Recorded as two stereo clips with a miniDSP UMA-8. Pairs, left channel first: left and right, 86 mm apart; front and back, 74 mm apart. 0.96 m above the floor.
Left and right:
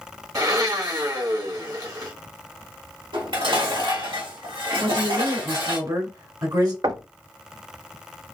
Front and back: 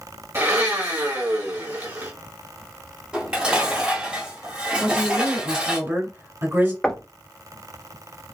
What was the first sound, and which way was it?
A blender, 125° right.